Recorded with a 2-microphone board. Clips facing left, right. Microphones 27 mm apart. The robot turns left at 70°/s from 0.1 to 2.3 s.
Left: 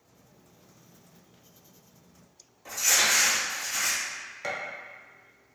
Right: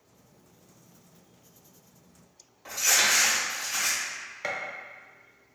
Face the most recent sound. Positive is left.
turn(degrees=-20)  # may be behind; listen again after turning